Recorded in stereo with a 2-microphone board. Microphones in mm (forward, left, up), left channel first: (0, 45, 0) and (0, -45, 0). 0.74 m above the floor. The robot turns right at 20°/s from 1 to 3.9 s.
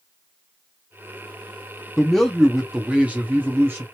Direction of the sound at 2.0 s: 170° left.